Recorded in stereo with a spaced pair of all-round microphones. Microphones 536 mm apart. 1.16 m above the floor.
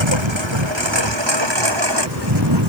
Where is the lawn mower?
60° right (ahead or behind); by 2.7 s 50° right (ahead or behind).